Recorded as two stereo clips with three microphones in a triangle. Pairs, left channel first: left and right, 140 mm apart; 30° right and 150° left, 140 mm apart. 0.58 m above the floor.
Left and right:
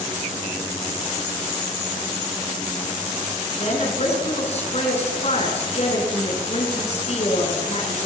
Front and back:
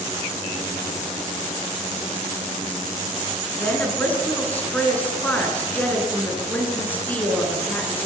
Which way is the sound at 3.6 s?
50° left.